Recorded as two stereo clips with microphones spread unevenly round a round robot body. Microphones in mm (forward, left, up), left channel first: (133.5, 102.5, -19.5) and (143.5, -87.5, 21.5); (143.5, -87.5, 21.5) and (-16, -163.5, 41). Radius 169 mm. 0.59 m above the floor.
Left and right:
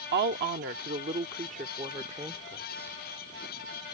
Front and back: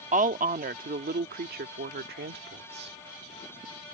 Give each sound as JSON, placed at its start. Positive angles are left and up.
{"t": 0.1, "sound": "a woman speaking", "azimuth_deg": -120}